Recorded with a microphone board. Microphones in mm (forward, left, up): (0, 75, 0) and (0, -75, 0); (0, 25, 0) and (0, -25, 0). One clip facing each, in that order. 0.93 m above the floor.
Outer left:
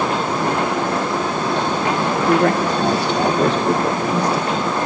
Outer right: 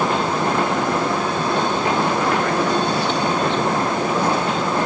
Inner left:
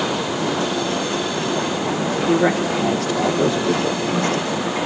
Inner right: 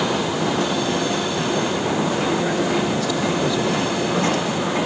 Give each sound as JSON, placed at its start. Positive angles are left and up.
{"t": 2.3, "sound": "a woman speaking", "side_deg": 75, "distance_m": 3.0}